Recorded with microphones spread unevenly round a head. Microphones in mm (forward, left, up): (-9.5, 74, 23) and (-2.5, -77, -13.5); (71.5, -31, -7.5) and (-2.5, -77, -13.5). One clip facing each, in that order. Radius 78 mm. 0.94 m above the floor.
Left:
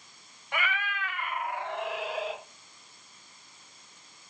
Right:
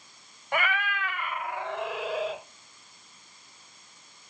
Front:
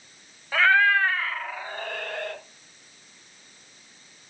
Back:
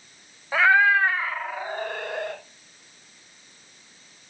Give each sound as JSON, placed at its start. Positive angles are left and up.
{"t": 0.5, "sound": "a cat meowing", "azimuth_deg": -90, "distance_m": 0.8}